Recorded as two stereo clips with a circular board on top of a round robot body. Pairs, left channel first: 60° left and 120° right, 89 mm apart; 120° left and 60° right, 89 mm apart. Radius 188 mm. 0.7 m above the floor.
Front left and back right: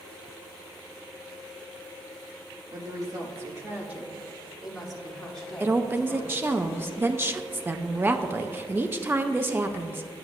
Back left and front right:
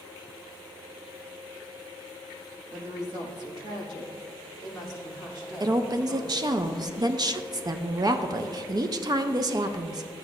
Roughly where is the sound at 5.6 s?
Ahead right.